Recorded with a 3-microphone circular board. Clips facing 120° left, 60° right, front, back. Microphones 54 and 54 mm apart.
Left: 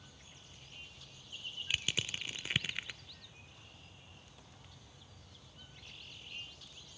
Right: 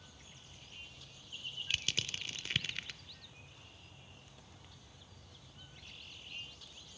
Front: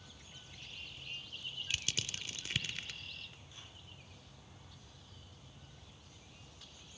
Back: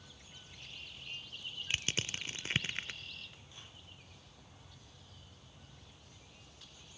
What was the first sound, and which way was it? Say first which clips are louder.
Crushing: left 1 dB, back 4 dB; straight behind.